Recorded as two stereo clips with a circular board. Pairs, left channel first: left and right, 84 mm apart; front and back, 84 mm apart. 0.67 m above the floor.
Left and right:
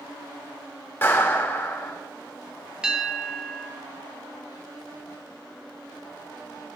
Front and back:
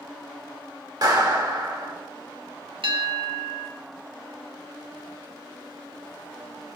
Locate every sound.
1.0 s a clap: 150° left, 2 m
2.8 s a bell: 170° right, 2.0 m